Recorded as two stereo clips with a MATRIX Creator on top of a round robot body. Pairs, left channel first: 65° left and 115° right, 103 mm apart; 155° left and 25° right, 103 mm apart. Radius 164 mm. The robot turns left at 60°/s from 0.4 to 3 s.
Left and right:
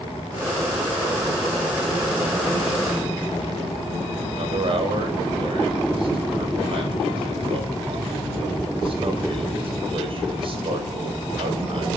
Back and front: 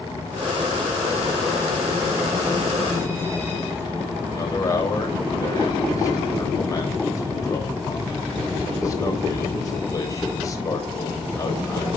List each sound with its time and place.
4.3 s a man speaking: 145° right, 3.5 m